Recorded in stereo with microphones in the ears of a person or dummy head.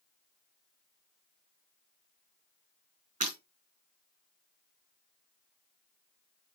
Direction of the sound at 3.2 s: 45° right (ahead or behind).